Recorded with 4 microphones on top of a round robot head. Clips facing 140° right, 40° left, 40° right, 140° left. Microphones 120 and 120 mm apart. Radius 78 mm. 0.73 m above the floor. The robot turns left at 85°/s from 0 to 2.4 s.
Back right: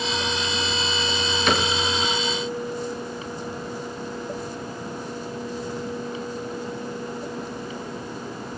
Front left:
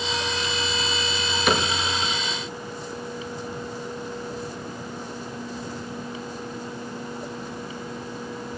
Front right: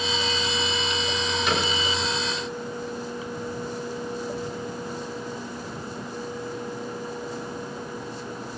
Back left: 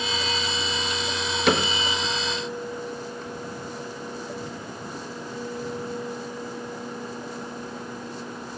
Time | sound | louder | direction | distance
1.5 | a cupboard door | even, back left 6 dB | 125° left | 5.5 m